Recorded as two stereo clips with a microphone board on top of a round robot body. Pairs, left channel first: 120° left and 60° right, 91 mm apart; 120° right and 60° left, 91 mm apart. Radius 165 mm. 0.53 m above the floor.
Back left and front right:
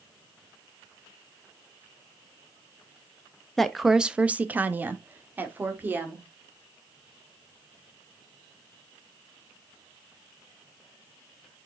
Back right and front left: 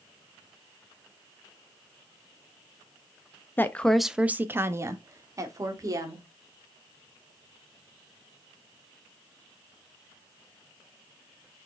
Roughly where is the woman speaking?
Behind right.